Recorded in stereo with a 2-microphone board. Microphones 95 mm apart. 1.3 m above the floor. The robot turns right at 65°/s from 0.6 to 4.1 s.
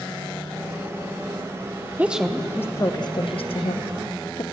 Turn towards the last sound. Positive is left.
turn(degrees=60)  # may be behind; listen again after turning